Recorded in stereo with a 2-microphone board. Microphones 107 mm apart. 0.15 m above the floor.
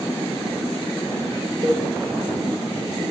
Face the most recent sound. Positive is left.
turn(degrees=-50)  # may be behind; listen again after turning